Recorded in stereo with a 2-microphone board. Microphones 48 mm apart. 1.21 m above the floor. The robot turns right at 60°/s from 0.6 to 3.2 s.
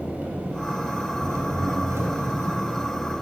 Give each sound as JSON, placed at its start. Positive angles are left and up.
{"t": 0.0, "sound": "an engine running", "azimuth_deg": -150, "distance_m": 3.5}